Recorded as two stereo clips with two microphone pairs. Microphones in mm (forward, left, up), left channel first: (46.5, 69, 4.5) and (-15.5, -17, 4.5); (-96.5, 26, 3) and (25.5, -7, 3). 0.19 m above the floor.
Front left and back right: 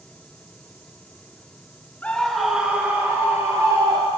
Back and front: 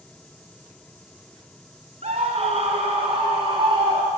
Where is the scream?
15° right, 1.8 m; by 4.1 s 70° right, 4 m.